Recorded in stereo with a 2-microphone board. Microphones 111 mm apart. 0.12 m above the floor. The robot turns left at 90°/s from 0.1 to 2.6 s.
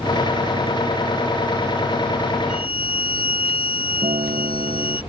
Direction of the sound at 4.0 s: 70° right (ahead or behind).